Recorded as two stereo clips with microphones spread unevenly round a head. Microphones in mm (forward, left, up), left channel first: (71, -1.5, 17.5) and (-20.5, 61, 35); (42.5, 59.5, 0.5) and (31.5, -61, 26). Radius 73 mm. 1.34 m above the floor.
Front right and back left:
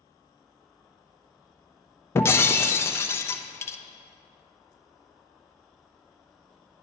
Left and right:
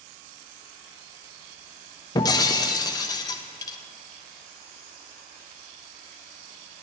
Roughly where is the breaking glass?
Ahead left.